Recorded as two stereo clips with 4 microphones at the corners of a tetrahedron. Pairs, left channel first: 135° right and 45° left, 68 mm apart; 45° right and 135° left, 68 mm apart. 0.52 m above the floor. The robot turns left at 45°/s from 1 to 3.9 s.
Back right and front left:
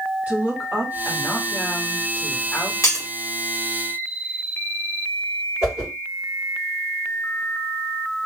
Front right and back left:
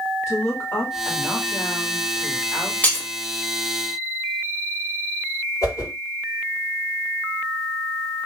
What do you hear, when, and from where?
0.3 s a woman speaking: 10° right, 1.4 m; by 2.7 s 90° right, 1.4 m
2.8 s breaking glass: 100° right, 0.9 m; by 3.1 s 110° right, 0.9 m
5.6 s a whoosh: 25° right, 2 m